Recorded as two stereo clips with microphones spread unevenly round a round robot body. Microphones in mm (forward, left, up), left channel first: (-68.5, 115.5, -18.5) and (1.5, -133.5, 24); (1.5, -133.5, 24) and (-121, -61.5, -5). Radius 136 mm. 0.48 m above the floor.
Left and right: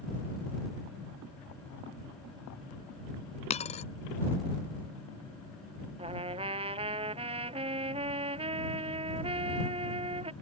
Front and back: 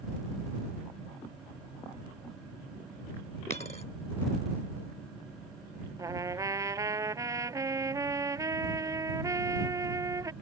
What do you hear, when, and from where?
3.5 s a dropped coin: 35° left
6.0 s a trumpet: 145° right